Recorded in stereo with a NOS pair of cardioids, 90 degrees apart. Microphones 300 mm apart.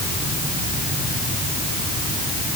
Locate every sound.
Only background noise.